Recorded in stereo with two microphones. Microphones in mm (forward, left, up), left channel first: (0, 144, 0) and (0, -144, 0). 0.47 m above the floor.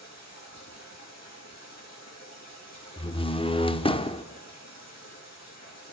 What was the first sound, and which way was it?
Running water, 65° left (ahead or behind).